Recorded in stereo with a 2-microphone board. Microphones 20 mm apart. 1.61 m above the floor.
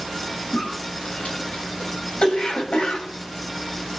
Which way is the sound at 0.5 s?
70° left (ahead or behind).